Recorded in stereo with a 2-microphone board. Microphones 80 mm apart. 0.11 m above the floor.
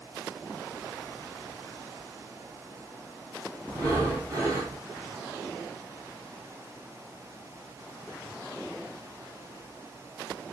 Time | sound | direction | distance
3.7 | breathing | 30° right (ahead or behind) | 2.5 m